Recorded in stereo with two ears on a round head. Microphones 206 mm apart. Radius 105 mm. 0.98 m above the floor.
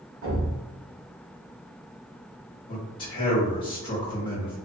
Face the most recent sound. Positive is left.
turn(degrees=25)  # may be behind; listen again after turning